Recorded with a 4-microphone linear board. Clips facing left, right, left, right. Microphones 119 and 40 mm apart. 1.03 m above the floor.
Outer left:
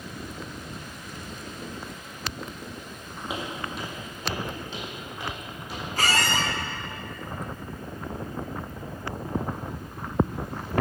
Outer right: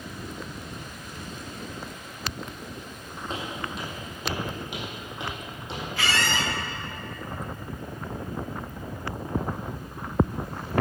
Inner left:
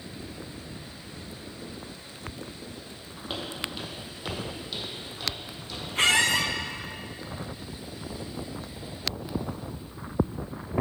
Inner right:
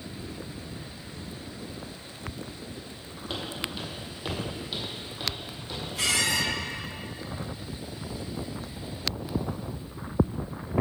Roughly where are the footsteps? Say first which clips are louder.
Outer left 1 dB, even; centre.